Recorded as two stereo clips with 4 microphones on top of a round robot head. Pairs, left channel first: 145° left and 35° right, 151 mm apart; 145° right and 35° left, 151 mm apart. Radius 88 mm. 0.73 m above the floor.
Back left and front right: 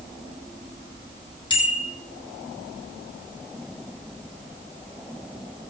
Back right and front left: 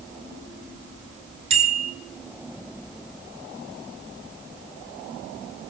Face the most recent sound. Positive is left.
turn(degrees=85)